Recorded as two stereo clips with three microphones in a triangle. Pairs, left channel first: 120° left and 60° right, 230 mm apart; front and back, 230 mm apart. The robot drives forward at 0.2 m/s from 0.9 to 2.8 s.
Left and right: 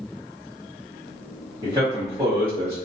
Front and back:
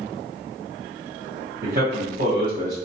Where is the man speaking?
130° right, 0.9 m; by 2.8 s 140° right, 1.0 m.